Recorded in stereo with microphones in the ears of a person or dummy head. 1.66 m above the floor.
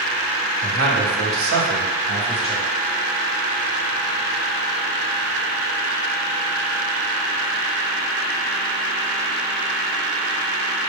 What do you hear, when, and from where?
0.6 s a man speaking: 60° right (ahead or behind), 1.0 m; by 2.6 s 30° right (ahead or behind), 0.8 m